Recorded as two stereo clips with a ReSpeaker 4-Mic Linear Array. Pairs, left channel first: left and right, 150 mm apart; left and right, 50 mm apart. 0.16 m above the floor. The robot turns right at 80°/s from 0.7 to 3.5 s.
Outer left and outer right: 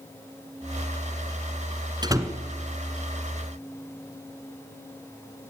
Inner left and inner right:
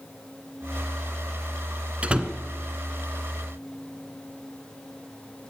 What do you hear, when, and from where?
2.0 s a door slam: 30° right (ahead or behind), 1.7 m; by 2.3 s 10° right (ahead or behind), 1.7 m